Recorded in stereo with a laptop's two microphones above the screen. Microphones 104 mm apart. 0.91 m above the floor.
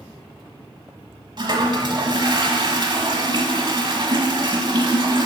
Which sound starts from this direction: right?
A toilet flushing, at 1.4 s.